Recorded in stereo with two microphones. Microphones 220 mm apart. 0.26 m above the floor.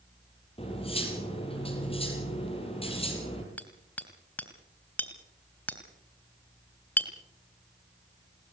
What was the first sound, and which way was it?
Cutlery clinking, 25° left (ahead or behind).